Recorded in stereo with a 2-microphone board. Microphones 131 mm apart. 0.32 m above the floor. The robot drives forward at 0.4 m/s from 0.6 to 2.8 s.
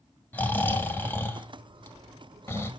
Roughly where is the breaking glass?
I don't hear breaking glass.